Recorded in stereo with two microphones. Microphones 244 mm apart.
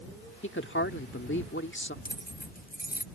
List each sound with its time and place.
0.4 s a woman speaking: 50° left (ahead or behind)
2.0 s keys jangling: 35° left (ahead or behind)